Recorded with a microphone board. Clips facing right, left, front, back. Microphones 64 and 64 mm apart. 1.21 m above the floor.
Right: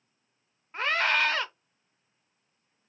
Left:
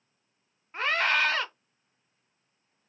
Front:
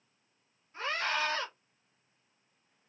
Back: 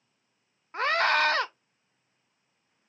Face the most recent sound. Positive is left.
turn(degrees=180)